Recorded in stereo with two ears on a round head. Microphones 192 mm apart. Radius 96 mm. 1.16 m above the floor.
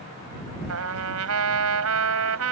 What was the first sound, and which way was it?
A trumpet, 80° right.